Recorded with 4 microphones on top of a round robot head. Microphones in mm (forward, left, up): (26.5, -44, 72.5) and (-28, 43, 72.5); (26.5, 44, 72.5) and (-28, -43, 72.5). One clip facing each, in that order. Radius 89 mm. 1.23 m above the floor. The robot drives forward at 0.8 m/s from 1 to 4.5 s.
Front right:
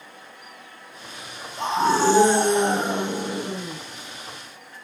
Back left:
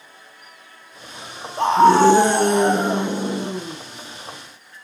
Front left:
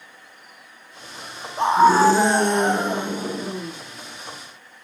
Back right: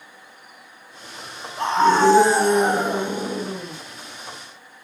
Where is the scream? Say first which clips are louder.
Back left 8 dB, front left 2 dB; 125° left, 0.8 m; by 3.8 s 165° left, 2.5 m.